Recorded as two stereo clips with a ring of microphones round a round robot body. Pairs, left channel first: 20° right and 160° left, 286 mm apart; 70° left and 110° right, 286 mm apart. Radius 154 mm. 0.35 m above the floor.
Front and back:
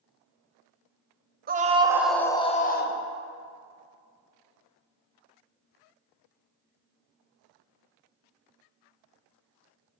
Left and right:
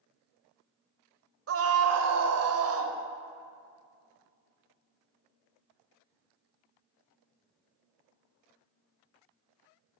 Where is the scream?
145° right, 1.4 m; by 3.0 s 70° right, 1.6 m.